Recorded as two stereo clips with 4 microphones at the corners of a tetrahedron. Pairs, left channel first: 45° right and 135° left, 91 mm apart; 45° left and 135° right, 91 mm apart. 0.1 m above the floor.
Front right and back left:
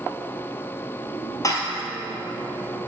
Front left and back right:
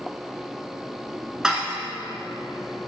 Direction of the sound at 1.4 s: 55° right.